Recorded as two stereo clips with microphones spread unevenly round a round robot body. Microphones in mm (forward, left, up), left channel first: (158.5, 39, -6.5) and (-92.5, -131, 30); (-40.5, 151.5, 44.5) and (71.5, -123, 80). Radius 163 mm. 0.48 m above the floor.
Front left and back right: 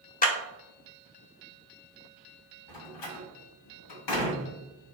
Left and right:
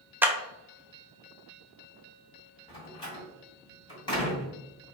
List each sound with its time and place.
0.2 s a clap: 20° left, 0.6 m
2.7 s a door slam: 40° left, 1.8 m